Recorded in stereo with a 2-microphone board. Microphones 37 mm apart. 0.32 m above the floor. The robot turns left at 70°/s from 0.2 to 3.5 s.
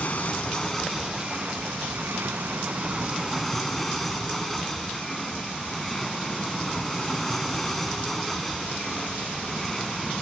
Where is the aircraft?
45° left; by 10.2 s 175° left.